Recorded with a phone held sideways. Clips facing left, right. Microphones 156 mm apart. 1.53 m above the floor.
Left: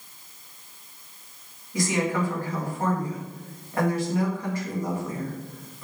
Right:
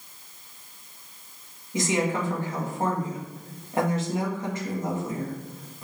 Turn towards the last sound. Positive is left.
turn(degrees=-20)  # may be behind; listen again after turning